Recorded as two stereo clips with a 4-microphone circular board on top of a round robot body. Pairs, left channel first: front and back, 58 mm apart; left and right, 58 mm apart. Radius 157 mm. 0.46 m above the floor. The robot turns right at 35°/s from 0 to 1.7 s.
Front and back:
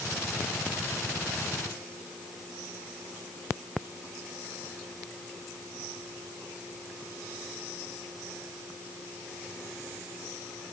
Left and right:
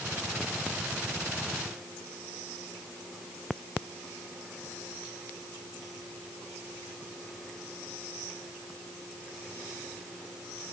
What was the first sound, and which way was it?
Only background noise.